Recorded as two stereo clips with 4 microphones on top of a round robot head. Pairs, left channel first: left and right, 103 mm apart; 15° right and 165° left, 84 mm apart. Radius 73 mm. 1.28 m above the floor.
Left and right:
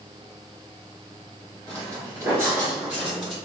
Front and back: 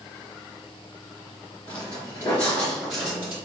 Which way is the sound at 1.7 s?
35° right.